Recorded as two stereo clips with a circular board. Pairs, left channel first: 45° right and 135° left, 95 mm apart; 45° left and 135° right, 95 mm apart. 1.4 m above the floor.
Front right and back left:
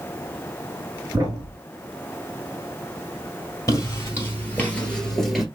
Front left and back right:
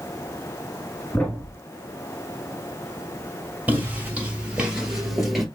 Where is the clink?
No clink in this recording.